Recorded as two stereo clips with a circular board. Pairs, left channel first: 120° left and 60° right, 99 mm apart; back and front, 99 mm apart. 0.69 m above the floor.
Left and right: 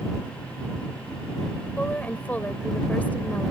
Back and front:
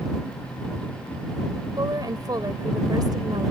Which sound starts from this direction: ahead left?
A woman speaking, at 1.8 s.